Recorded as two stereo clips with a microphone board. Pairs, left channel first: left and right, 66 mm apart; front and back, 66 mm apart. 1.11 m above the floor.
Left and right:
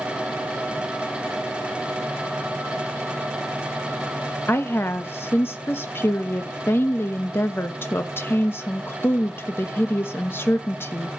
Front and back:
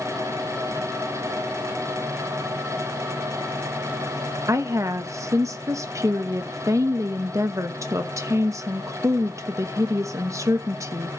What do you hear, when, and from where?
4.5 s a woman speaking: 140° left, 1.1 m